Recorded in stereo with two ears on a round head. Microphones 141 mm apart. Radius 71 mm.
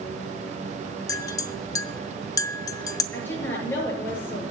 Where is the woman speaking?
15° left (ahead or behind), 6.5 m.